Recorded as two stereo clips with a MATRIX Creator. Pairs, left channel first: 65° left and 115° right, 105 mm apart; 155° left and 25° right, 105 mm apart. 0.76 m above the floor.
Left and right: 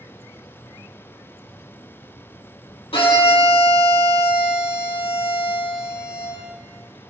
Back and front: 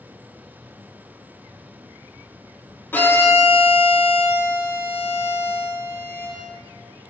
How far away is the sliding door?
No sliding door in this recording.